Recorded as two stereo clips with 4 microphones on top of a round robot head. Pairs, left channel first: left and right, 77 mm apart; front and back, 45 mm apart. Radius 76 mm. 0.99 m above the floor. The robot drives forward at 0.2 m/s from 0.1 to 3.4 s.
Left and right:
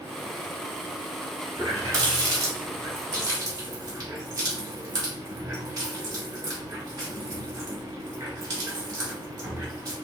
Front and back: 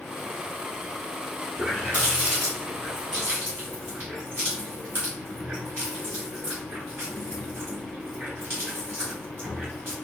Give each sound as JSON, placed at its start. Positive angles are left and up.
{"t": 1.6, "sound": "a running tap", "azimuth_deg": -125, "distance_m": 1.7}